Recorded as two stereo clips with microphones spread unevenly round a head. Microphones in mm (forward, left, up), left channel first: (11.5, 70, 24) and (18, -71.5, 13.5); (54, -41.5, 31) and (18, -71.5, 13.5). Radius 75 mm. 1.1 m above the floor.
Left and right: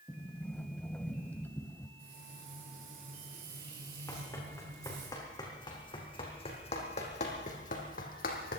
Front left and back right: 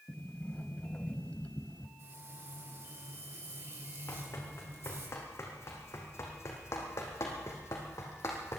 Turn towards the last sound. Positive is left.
turn(degrees=80)